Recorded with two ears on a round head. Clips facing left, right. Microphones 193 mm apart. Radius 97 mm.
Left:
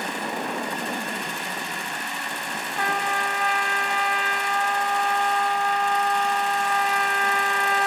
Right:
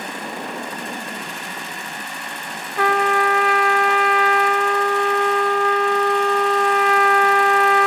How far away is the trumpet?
About 0.8 m.